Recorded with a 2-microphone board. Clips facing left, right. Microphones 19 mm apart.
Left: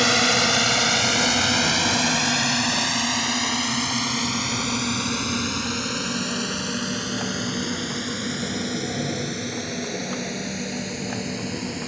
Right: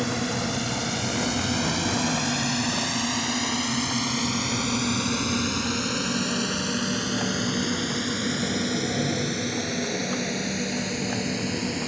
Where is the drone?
55° left (ahead or behind); by 11.9 s 10° right (ahead or behind).